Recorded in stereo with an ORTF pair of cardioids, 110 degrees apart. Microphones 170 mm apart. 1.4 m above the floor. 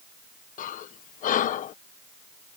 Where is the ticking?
I don't hear ticking.